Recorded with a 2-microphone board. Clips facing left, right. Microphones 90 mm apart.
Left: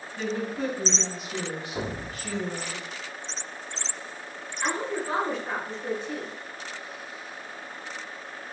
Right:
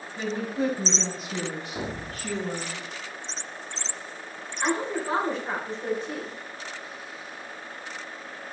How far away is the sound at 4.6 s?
About 3.5 m.